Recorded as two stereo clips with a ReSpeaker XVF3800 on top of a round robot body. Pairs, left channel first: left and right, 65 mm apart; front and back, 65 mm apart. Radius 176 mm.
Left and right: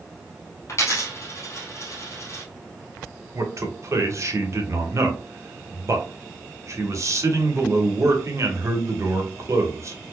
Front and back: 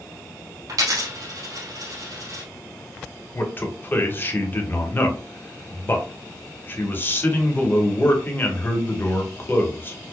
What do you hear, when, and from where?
0.7 s a dropped coin: 140° left, 0.6 m
3.3 s a man speaking: 55° right, 1.4 m